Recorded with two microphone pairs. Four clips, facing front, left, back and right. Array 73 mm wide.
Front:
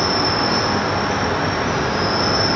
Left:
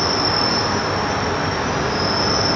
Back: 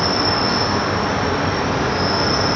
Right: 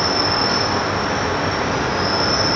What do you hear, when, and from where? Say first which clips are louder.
0.0 s an insect: right 1 dB, even; 110° right, 1.1 m